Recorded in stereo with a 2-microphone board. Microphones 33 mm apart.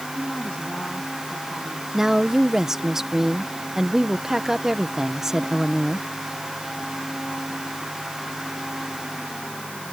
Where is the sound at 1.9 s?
10° right (ahead or behind).